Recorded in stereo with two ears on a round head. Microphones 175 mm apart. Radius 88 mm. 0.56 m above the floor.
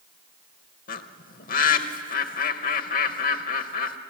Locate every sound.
0.9 s a bird: 50° left (ahead or behind), 0.9 m